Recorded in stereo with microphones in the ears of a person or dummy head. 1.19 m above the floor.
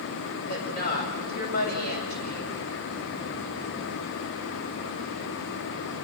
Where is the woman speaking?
45° left (ahead or behind), 6.5 m.